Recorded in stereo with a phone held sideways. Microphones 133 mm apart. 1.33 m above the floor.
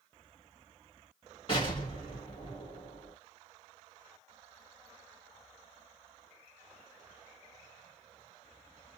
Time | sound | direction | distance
1.5 | an explosion | 35° left (ahead or behind) | 2 m